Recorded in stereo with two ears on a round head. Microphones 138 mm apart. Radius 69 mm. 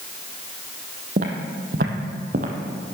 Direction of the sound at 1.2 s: 60° right (ahead or behind).